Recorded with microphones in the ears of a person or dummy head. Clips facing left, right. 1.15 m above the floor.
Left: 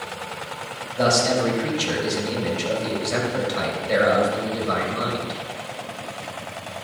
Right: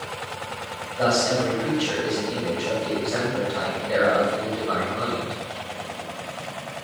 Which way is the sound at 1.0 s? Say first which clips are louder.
Left 2 dB; 40° left (ahead or behind).